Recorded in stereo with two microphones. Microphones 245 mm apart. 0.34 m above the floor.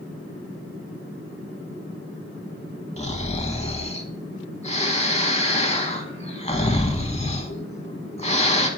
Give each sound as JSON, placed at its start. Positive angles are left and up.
{"t": 3.0, "sound": "snoring", "side_deg": 25, "distance_m": 0.9}